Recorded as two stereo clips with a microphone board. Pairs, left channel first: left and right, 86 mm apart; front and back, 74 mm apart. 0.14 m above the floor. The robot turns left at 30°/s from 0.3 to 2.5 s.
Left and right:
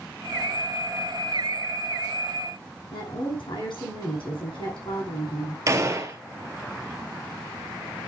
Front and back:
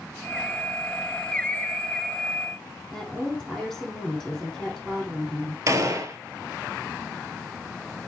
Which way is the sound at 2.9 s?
90° left.